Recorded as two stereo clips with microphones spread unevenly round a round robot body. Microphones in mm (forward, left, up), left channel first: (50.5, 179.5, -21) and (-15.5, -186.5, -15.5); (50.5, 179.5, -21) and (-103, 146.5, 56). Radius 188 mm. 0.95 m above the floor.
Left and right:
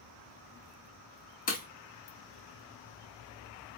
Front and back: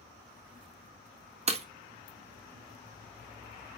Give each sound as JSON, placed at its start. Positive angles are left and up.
{"t": 1.5, "sound": "breaking glass", "azimuth_deg": 150, "distance_m": 0.6}